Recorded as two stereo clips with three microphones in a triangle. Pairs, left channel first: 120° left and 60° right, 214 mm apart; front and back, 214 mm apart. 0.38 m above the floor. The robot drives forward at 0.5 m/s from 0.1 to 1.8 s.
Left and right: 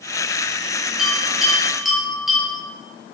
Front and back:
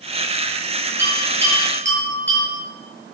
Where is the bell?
150° right, 7 m.